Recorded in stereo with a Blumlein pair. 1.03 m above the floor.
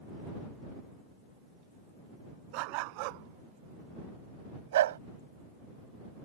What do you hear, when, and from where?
2.5 s a dog barking: 45° right; by 5.0 s 60° right